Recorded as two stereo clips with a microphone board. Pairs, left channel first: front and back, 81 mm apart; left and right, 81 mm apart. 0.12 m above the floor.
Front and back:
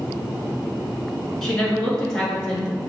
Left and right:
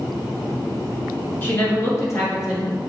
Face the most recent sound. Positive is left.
turn(degrees=80)